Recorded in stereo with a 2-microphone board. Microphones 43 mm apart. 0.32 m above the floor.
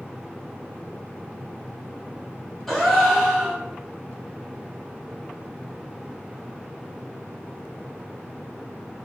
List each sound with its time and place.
2.7 s a gasp: 5° left (ahead or behind), 1.4 m